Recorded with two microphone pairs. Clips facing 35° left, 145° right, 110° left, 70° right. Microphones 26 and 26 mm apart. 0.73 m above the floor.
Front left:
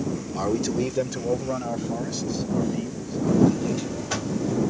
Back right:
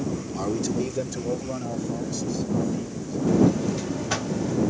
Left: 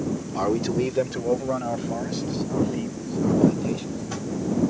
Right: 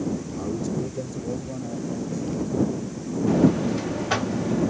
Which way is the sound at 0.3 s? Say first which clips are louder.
Front left 2 dB, left 5 dB; 105° left.